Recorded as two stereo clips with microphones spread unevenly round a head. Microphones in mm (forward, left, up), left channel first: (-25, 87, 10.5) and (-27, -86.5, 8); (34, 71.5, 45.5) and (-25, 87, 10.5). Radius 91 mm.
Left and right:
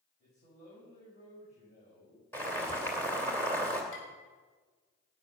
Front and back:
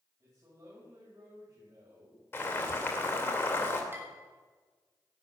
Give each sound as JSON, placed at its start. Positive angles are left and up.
{"t": 0.2, "sound": "a man speaking", "azimuth_deg": 135, "distance_m": 9.0}
{"t": 2.3, "sound": "boiling", "azimuth_deg": 10, "distance_m": 2.5}
{"t": 3.9, "sound": "dishes clattering", "azimuth_deg": 105, "distance_m": 6.5}